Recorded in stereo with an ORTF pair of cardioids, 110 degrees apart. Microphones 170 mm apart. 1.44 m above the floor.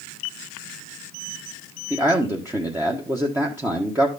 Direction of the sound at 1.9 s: 15° right.